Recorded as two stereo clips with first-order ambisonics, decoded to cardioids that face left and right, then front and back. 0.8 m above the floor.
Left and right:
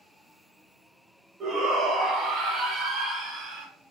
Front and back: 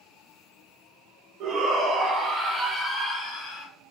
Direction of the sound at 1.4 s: 150° right.